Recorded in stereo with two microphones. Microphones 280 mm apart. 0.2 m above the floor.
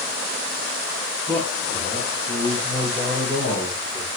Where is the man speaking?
5° right (ahead or behind), 5.5 m; by 4.1 s 30° right (ahead or behind), 5 m.